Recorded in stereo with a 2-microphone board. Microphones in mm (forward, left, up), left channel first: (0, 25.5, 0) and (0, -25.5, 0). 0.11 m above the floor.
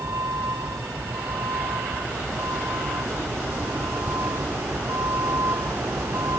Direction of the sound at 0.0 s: 75° right (ahead or behind).